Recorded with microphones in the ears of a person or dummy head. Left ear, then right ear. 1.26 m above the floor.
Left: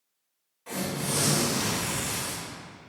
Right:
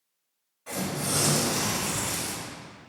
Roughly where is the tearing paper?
Centre.